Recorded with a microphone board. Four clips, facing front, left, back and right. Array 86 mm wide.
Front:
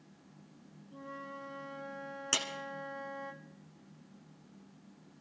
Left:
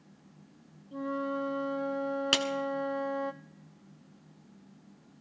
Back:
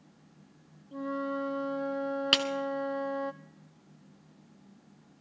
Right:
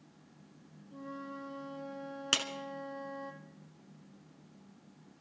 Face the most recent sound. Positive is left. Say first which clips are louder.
# left 3 dB, back 5 dB
turn(degrees=165)